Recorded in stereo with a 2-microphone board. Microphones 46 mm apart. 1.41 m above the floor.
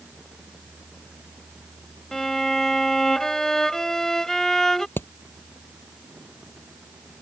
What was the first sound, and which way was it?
A violin, 10° left (ahead or behind).